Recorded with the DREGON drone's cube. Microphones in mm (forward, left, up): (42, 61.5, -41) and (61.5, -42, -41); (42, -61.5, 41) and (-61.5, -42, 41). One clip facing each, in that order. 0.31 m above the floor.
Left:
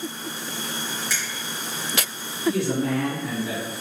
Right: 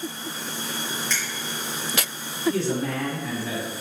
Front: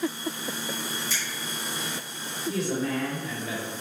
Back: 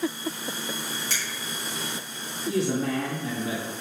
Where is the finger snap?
Straight behind, 3.5 m.